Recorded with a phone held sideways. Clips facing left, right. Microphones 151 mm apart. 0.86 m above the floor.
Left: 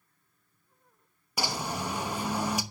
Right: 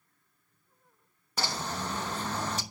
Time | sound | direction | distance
1.4 | a bird | 10° left (ahead or behind) | 0.9 m